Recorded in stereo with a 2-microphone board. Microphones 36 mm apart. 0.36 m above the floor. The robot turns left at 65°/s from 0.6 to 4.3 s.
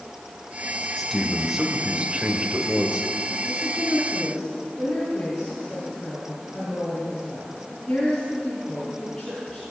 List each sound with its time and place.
1.0 s a man speaking: 10° left, 1.4 m; by 3.1 s 125° right, 1.4 m
3.5 s a woman speaking: 135° right, 3.5 m; by 9.6 s 170° left, 3.5 m